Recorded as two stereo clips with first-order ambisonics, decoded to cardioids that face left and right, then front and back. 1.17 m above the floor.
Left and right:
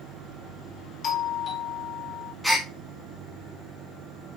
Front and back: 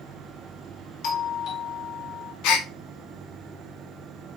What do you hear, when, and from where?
1.0 s a doorbell: 35° left, 0.6 m
2.4 s a gasp: straight ahead, 0.7 m